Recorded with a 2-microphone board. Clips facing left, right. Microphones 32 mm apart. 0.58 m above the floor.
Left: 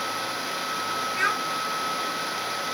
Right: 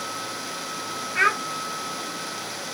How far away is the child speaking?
About 0.8 m.